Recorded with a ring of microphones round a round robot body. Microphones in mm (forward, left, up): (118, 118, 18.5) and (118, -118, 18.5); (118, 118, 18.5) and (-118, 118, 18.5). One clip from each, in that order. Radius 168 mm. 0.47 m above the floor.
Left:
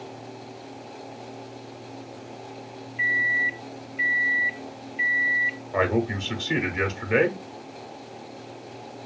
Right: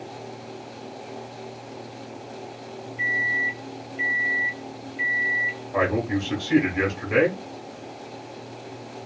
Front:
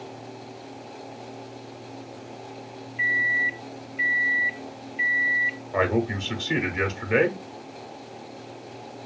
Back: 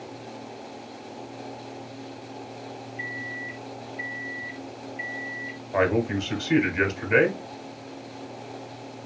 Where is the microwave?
35° left, 0.5 m.